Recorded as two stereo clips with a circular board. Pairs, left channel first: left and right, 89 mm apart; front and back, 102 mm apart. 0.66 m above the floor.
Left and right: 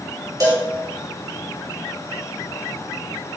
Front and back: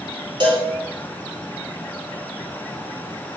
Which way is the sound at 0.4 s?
140° right.